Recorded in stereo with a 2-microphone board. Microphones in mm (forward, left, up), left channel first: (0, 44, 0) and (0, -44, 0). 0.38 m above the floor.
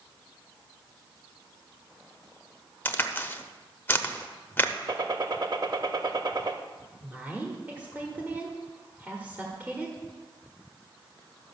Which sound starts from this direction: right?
A gunshot, at 4.9 s.